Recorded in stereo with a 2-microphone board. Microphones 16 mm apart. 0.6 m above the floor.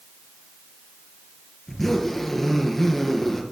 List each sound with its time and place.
1.7 s a zipper: 10° left (ahead or behind), 4.5 m